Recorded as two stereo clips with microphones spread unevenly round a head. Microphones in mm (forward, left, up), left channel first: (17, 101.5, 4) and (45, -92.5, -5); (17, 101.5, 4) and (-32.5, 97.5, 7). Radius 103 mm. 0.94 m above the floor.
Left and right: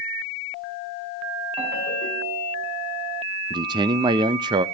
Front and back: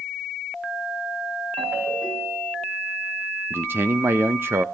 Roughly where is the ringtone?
Behind.